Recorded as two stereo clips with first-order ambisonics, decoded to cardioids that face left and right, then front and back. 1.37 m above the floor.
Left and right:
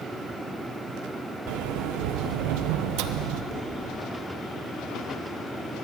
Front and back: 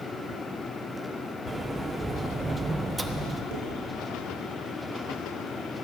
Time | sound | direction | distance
1.5 | a sliding door | 100° right | 1.1 m
3.5 | dishes clattering | 150° right | 9.5 m